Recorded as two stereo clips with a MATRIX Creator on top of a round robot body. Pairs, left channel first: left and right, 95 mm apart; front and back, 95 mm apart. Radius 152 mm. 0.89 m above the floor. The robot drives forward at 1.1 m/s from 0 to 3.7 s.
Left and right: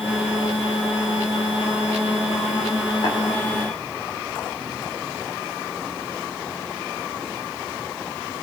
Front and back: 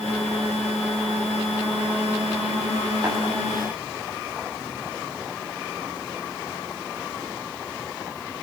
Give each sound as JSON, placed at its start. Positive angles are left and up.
{"t": 3.0, "sound": "tapping", "azimuth_deg": 125, "distance_m": 7.5}